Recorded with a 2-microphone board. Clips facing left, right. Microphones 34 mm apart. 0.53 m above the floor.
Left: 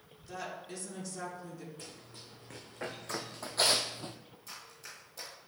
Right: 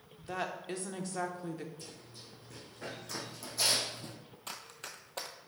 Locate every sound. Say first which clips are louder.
0.2 s a woman speaking: right 4 dB; 40° right (ahead or behind), 1.0 m
1.8 s running footsteps: left 1 dB; 55° left (ahead or behind), 2.5 m; by 4.2 s 40° left (ahead or behind), 0.8 m
4.5 s running footsteps: right 4 dB; 65° right (ahead or behind), 1.1 m